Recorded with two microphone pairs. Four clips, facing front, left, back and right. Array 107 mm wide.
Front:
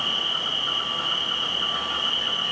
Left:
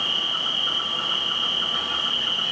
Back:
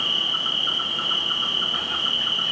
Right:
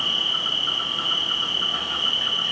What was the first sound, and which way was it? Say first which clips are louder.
An insect: even, even; 160° right.